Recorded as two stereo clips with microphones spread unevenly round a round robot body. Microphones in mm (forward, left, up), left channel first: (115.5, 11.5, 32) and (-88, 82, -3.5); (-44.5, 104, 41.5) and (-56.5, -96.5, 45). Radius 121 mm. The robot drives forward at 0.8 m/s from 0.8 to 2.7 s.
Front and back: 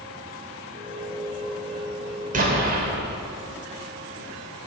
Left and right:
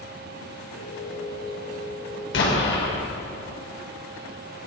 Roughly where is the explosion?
Left.